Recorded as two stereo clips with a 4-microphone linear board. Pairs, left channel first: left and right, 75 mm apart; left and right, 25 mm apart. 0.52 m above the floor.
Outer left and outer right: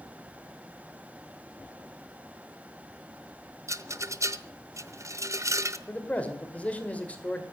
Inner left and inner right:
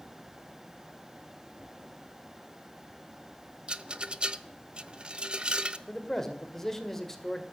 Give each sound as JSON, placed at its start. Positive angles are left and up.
{"t": 3.7, "sound": "a rattle", "side_deg": -40, "distance_m": 0.7}
{"t": 5.9, "sound": "a man speaking", "side_deg": 20, "distance_m": 2.0}